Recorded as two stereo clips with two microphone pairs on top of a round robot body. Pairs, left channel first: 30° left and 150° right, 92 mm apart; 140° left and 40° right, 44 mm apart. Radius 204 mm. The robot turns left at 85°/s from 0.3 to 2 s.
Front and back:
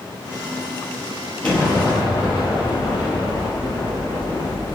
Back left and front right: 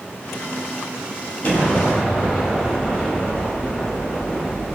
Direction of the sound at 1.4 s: 105° left.